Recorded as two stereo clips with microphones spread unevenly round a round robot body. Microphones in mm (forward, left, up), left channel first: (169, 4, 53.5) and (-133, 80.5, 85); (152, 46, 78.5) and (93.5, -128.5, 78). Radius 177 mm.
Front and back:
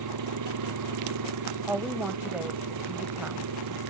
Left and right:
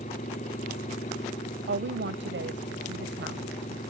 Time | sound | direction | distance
0.0 | an engine running | 135° left | ?
1.7 | a woman speaking | 110° right | ?